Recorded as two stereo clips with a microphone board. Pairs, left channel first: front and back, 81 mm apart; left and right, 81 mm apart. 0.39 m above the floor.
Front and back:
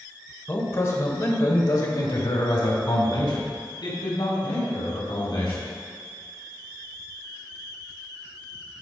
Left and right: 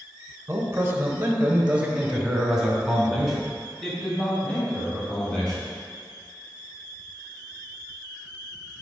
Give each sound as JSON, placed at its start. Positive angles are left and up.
{"t": 0.5, "sound": "a man speaking", "azimuth_deg": -50, "distance_m": 1.3}